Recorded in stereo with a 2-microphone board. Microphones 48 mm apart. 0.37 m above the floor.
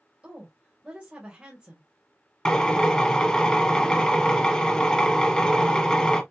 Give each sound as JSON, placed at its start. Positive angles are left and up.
{"t": 0.2, "sound": "a woman speaking", "side_deg": -25, "distance_m": 1.9}
{"t": 2.5, "sound": "a drill", "side_deg": 15, "distance_m": 1.2}